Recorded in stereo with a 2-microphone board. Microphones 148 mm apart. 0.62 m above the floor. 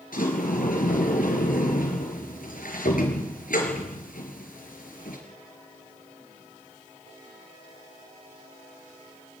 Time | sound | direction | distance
0.1 | a sliding door | 70° left (ahead or behind) | 4.5 m